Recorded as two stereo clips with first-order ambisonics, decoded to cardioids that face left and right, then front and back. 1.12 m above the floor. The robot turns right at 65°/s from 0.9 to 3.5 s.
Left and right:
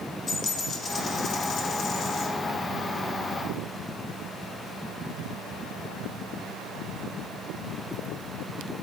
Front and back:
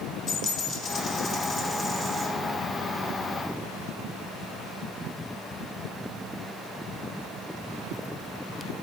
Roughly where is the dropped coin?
Ahead left.